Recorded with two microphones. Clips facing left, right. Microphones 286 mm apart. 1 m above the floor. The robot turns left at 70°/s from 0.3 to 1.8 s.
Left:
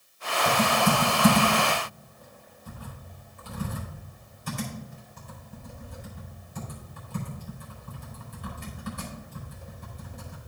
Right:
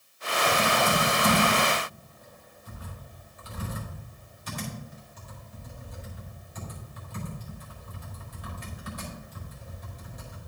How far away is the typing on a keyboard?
About 4.5 m.